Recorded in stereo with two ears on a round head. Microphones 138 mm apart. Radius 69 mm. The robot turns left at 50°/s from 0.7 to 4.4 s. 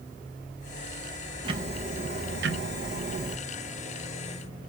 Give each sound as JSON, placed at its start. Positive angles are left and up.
{"t": 1.4, "sound": "ticking", "azimuth_deg": -30, "distance_m": 0.6}